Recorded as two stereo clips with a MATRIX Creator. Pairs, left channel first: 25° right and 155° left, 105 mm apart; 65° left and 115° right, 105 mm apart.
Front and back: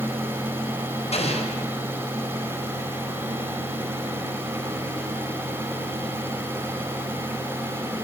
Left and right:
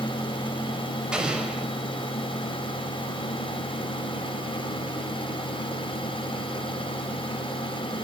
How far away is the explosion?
About 6 m.